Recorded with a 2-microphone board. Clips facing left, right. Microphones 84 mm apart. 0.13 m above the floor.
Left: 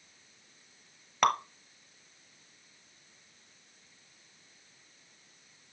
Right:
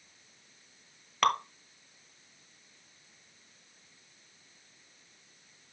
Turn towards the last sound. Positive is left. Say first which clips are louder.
# even
turn(degrees=10)  # may be behind; listen again after turning